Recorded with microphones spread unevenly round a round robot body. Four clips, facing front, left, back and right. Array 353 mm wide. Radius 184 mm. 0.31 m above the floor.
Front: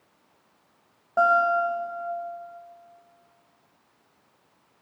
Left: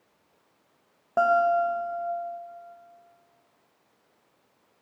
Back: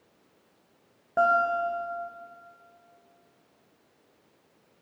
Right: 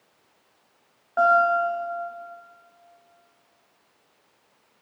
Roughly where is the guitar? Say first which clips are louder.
Right 2 dB, front 3 dB; behind left.